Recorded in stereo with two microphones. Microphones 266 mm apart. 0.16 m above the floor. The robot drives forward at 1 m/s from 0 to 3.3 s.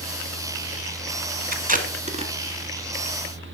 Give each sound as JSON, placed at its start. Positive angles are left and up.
{"t": 1.5, "sound": "tape being pulled", "side_deg": -35, "distance_m": 0.8}